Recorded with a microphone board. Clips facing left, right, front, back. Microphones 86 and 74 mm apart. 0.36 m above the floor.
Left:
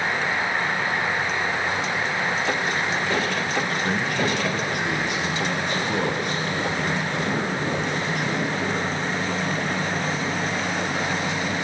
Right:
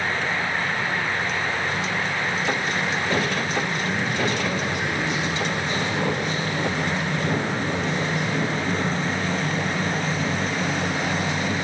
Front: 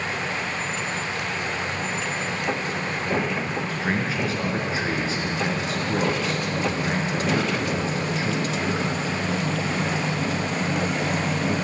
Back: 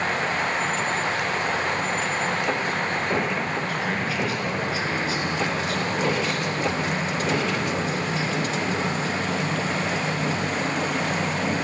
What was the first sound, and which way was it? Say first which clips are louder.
A man speaking: left 1 dB, even; 60° left.